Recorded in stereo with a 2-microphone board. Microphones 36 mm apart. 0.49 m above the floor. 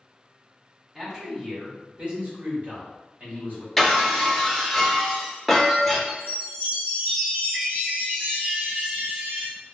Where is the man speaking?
10° right (ahead or behind), 1.1 m; by 3.7 s 60° right (ahead or behind), 1.7 m.